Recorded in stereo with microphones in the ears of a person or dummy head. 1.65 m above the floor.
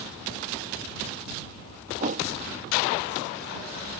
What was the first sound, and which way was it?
A whoosh, 45° right (ahead or behind).